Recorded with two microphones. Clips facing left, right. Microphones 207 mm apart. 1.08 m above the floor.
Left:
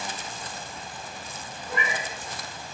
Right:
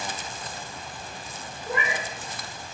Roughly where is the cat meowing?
Right.